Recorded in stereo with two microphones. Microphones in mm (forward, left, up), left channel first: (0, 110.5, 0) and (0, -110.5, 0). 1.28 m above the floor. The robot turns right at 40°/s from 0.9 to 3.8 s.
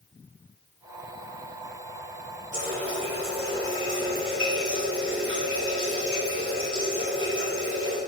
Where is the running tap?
120° right, 3 m; by 8.0 s 70° right, 3 m.